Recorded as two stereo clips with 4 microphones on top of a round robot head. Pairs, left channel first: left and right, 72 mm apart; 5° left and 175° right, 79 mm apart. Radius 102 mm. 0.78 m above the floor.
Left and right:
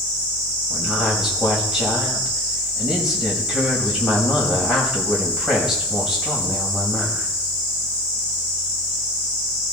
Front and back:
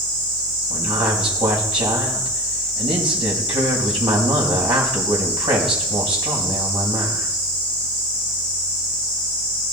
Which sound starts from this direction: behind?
A woman speaking, at 0.7 s.